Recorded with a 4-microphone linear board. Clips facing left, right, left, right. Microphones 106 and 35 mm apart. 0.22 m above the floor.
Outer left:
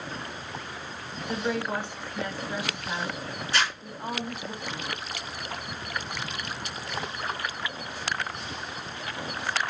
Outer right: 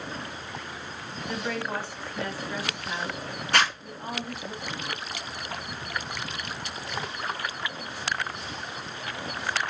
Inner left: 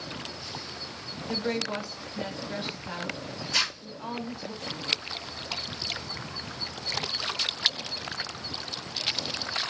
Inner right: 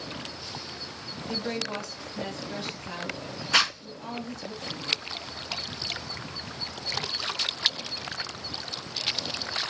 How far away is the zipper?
About 1.7 m.